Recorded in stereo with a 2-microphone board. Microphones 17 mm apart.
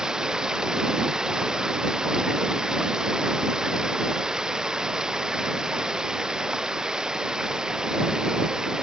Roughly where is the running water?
Right.